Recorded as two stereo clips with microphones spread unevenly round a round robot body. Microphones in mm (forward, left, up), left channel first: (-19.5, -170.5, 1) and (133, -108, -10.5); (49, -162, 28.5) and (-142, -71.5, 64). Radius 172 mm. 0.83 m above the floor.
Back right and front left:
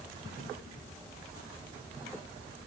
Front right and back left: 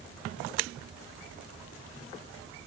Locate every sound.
Only background noise.